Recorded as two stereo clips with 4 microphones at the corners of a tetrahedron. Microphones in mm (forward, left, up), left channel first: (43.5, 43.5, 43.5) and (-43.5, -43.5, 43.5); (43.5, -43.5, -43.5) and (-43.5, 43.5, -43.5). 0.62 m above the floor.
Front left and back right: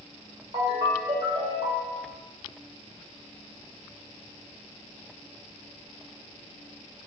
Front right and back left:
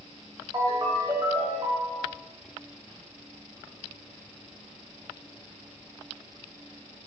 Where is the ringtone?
170° right, 1.7 m.